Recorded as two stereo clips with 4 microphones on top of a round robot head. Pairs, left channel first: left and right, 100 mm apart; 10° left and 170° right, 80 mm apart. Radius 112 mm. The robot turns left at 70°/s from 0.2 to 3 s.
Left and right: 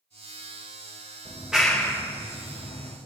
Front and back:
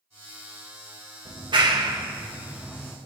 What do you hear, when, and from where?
1.2 s a clap: 155° right, 2.5 m; by 3.0 s 85° left, 2.5 m